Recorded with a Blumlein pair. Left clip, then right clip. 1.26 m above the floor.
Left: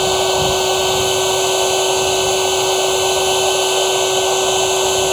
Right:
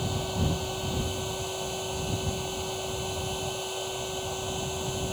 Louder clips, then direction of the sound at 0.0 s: Left 17 dB; 50° left.